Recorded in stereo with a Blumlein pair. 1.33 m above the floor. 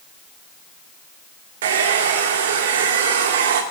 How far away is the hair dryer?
About 1.7 m.